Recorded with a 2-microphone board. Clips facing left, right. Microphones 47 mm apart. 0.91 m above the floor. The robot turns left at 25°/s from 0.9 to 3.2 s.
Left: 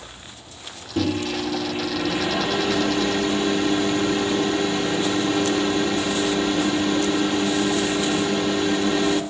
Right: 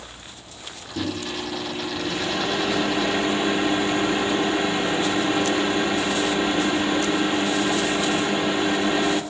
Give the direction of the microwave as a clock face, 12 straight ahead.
11 o'clock.